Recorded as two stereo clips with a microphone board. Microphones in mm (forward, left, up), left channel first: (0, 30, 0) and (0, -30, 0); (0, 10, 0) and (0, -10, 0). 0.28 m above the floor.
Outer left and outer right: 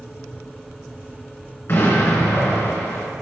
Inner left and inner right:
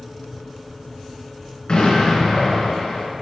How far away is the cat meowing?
No cat meowing in this recording.